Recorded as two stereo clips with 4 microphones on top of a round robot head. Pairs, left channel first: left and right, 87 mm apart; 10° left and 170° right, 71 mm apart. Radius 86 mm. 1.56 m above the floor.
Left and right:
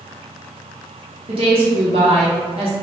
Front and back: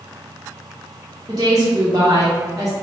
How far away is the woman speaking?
About 0.6 m.